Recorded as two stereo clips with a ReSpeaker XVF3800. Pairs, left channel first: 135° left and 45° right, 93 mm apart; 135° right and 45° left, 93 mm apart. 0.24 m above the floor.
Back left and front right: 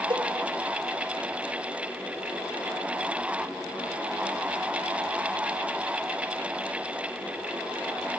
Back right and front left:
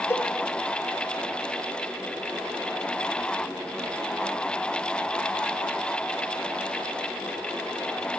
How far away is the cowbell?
About 2.5 m.